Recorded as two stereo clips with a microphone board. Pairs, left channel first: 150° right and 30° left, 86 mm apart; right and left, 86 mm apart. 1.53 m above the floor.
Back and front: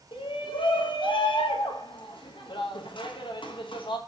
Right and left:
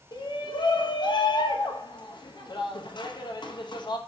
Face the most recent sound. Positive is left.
turn(degrees=-125)